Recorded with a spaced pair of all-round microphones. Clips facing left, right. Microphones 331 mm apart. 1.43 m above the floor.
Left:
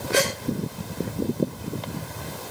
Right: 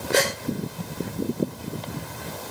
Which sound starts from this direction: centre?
A gasp, at 0.1 s.